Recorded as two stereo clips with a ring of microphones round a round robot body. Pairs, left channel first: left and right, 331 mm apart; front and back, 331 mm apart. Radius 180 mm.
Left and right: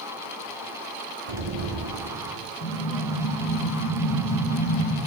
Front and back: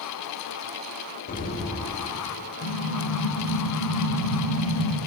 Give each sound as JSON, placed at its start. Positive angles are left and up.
{"t": 1.3, "sound": "an explosion", "azimuth_deg": -65, "distance_m": 1.5}
{"t": 2.6, "sound": "an explosion", "azimuth_deg": 45, "distance_m": 4.5}